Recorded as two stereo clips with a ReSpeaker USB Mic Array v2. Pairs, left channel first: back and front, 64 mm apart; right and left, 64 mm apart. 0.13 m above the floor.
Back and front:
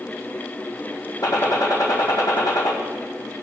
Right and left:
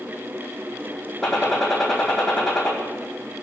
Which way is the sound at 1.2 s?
Straight behind.